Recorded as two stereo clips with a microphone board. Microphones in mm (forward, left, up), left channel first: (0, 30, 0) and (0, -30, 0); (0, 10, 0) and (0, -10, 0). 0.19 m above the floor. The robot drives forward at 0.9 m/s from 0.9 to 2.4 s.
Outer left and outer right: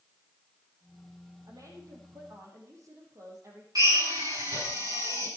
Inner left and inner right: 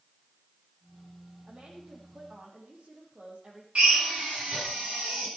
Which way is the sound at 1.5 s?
70° right (ahead or behind).